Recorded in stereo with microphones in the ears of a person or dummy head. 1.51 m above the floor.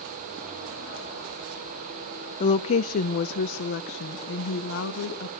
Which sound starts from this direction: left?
A woman speaking, at 2.4 s.